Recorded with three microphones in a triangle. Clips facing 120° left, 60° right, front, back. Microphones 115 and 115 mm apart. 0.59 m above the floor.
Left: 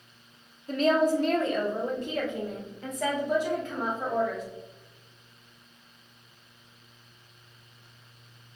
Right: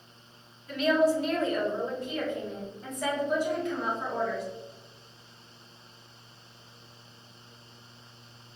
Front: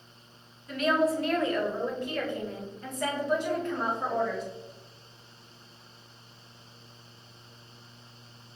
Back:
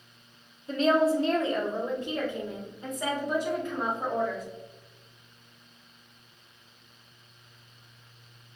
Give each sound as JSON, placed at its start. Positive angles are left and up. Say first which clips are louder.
{"t": 0.7, "sound": "a woman speaking", "louder": "left 1 dB, back 3 dB", "azimuth_deg": 140, "distance_m": 0.8}